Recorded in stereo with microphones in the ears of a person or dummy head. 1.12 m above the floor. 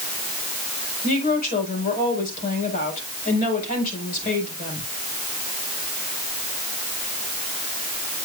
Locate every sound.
1.0 s a woman speaking: 45° left (ahead or behind), 5.5 m